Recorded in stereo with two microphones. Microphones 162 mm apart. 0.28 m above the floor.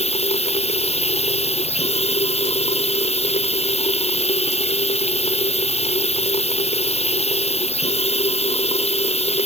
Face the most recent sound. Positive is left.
turn(degrees=40)  # may be behind; listen again after turning